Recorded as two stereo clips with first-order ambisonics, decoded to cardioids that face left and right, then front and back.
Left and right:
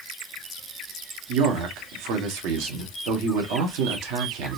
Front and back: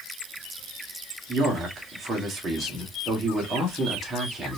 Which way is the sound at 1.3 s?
105° right.